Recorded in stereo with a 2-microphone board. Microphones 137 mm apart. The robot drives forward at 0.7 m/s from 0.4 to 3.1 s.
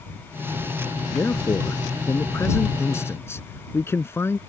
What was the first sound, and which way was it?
A man speaking, 20° left (ahead or behind).